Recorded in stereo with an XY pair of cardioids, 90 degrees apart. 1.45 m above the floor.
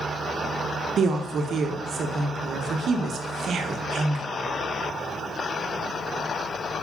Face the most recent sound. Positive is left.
turn(degrees=-65)